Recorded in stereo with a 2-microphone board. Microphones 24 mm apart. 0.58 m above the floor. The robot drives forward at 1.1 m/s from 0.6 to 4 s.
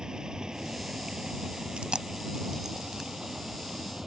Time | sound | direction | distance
0.0 | running water | 35° right (ahead or behind) | ?
1.8 | chewing | 55° right (ahead or behind) | ?